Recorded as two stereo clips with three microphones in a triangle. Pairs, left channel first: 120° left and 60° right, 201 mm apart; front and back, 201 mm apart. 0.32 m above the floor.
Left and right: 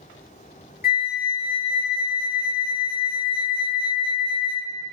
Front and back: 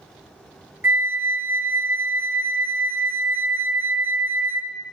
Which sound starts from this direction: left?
A flute, at 0.8 s.